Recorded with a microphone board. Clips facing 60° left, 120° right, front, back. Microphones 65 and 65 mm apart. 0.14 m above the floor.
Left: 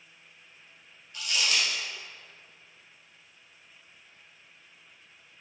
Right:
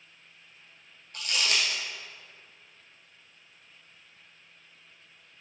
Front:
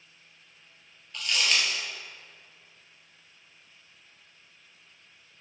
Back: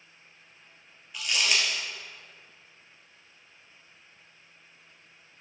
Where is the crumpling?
100° right, 1.9 m.